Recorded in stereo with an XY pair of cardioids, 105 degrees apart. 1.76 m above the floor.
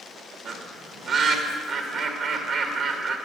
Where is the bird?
65° right, 2 m.